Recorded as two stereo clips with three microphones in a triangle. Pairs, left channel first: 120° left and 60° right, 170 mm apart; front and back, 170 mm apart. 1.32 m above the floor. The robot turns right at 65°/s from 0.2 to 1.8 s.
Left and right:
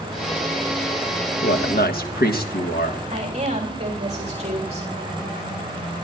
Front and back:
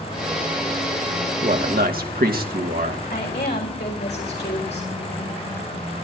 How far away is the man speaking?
About 1.5 m.